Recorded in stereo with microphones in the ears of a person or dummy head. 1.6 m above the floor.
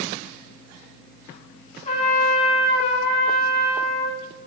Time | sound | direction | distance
1.9 | a trumpet | 40° left (ahead or behind) | 3 m